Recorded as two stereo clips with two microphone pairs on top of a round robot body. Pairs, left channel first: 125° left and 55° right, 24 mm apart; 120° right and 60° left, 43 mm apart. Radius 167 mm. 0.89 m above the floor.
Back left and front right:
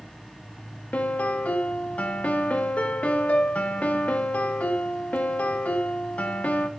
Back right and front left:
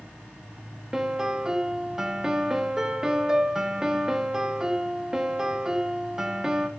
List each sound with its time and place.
0.9 s a piano: 140° left, 0.6 m